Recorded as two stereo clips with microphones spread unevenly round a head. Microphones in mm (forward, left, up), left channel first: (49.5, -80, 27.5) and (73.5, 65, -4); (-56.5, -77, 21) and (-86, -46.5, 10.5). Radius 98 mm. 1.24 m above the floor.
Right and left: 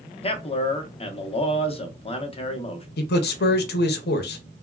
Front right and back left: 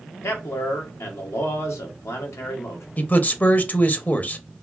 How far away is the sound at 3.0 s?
About 0.6 m.